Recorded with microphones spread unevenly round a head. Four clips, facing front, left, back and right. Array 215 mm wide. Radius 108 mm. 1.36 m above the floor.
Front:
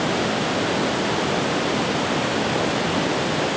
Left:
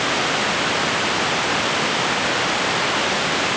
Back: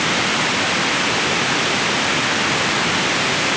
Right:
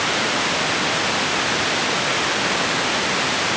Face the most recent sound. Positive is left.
No sound to turn to.